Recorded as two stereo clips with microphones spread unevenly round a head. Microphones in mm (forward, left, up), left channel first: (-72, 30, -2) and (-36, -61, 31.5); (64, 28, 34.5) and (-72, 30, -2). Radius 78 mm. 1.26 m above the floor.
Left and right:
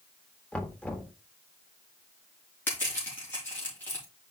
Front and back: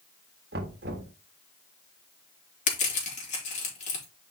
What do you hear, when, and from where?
0.5 s knocking: 165° right, 1.5 m
2.7 s crushing: 35° left, 3.5 m